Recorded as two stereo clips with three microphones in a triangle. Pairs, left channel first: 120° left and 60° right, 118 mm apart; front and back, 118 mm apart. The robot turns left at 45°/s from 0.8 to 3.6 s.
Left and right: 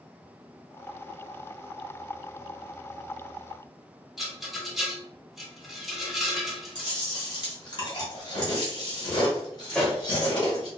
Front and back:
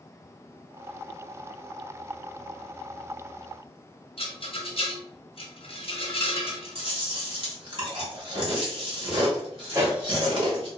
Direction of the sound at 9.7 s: 165° right.